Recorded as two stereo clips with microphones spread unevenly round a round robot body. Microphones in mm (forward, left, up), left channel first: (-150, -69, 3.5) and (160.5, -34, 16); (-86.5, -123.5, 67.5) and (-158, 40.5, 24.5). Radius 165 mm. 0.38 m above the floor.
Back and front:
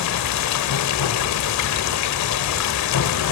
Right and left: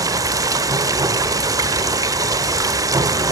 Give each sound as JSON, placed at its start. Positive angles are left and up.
{"t": 0.0, "sound": "running water", "azimuth_deg": 170, "distance_m": 1.1}